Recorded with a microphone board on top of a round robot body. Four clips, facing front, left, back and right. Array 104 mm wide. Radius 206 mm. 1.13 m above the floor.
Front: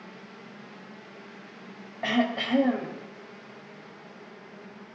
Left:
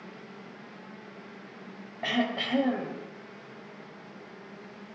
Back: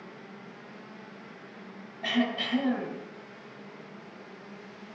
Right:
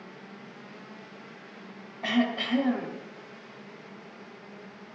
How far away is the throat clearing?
About 1.1 m.